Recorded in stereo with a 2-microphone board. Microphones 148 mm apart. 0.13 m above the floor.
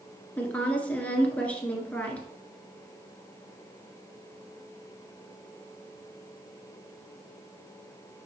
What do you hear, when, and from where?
0.4 s a woman speaking: 10° left (ahead or behind), 1.6 m